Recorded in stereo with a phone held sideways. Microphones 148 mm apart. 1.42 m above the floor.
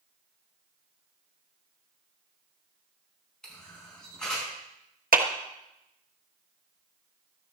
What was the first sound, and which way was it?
A camera shutter, 5° left (ahead or behind).